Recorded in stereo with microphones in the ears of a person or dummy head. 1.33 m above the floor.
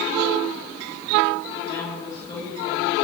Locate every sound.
1.6 s a woman speaking: 20° left (ahead or behind), 7.5 m